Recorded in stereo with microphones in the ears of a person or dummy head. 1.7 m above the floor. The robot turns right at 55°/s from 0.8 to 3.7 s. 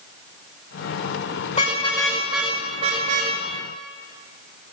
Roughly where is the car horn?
Left.